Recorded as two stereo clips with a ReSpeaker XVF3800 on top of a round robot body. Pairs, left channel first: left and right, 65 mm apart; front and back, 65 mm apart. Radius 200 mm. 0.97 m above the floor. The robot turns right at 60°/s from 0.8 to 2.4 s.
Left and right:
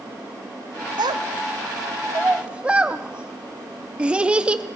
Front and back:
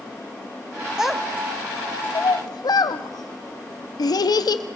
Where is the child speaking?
100° right, 0.7 m; by 4.6 s 15° right, 0.7 m.